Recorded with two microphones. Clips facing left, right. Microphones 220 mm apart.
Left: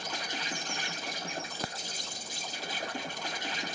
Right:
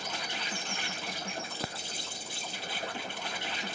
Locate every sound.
0.0 s an insect: 45° left (ahead or behind), 2 m